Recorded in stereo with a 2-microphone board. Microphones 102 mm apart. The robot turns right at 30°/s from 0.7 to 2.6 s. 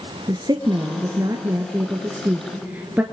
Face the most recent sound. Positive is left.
turn(degrees=-25)